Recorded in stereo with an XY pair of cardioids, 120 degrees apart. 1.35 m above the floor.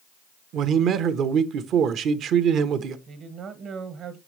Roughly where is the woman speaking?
Ahead right.